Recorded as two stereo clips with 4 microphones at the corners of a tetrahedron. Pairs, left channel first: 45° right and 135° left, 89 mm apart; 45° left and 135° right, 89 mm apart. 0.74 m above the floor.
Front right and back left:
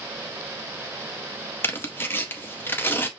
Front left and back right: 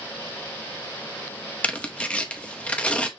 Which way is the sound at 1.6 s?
15° right.